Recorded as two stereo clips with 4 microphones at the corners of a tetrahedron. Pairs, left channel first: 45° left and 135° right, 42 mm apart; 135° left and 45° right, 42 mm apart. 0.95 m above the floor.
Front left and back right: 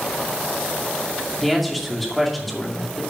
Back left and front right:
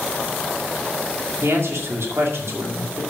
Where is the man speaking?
40° right, 2.5 m.